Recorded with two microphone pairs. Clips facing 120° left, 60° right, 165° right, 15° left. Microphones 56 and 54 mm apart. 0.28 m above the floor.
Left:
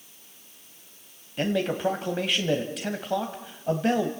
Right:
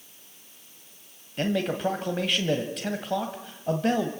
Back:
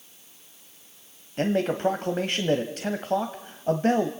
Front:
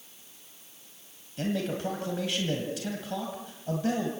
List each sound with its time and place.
1.4 s a man speaking: 155° right, 1.5 m